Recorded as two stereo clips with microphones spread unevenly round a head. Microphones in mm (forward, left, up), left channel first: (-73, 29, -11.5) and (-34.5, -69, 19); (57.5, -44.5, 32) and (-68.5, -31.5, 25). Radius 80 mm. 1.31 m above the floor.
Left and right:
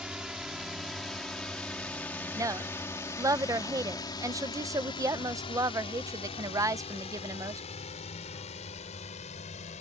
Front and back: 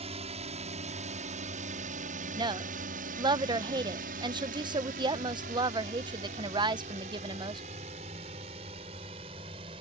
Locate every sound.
0.0 s a drone: 150° right; by 9.8 s 115° left
2.4 s a woman speaking: 130° right